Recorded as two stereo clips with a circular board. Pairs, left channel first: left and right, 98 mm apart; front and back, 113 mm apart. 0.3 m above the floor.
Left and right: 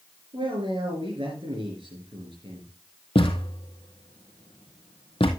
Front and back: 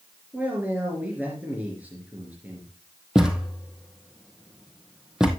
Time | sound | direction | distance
0.3 | a man speaking | 105° right | 4 m
3.1 | a thud | 95° left | 2.0 m